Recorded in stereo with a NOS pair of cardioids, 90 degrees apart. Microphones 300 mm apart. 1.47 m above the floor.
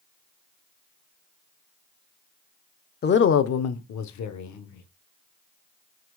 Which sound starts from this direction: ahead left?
A woman speaking, at 3.0 s.